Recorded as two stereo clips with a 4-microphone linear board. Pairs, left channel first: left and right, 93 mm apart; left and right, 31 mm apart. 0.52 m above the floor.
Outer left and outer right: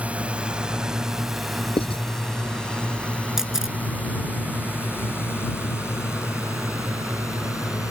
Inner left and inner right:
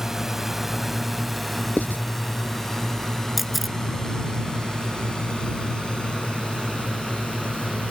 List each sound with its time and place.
0.0 s a drone: 15° right (ahead or behind); by 7.9 s 30° left (ahead or behind)
1.8 s writing: 65° left (ahead or behind)
3.4 s a camera shutter: 5° right (ahead or behind)